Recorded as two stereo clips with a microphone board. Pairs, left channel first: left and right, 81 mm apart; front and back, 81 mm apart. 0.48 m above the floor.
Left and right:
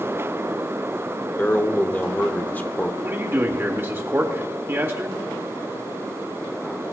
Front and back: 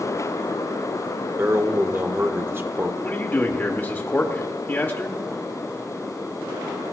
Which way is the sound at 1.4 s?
140° left.